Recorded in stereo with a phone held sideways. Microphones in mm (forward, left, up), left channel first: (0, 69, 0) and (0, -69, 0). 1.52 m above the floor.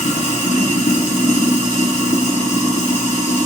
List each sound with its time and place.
0.0 s running water: 70° left (ahead or behind), 3.5 m